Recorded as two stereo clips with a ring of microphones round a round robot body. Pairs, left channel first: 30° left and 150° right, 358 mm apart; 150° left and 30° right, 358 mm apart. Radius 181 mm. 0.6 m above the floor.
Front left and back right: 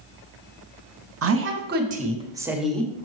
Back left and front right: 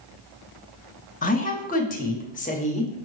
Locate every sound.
1.2 s a woman speaking: 155° right, 1.2 m; by 2.9 s 105° left, 1.1 m